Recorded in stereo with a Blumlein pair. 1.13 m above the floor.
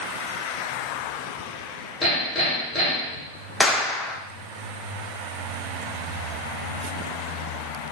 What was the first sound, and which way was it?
Hammering, 5° left.